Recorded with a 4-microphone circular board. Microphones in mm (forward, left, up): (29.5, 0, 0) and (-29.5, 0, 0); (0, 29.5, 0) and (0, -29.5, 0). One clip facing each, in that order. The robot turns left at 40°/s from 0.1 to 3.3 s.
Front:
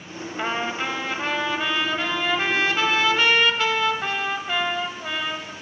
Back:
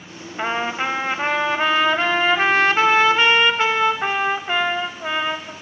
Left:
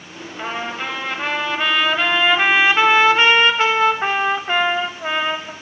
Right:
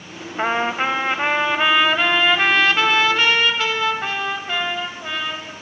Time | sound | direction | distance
0.4 | a trumpet | 110° right | 0.9 m